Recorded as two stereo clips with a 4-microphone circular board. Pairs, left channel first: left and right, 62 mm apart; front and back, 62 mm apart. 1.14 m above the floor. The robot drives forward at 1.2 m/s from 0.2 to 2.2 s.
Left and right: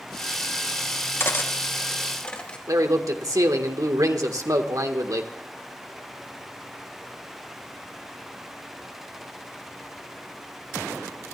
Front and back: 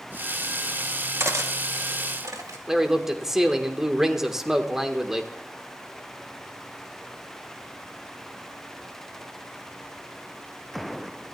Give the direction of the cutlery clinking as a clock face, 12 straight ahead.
7 o'clock.